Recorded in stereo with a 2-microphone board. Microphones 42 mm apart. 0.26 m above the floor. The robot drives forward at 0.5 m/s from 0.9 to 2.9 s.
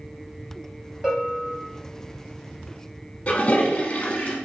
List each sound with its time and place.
1.0 s a bell: centre (ahead or behind), 1.2 m
3.3 s a toilet flushing: 35° left (ahead or behind), 0.8 m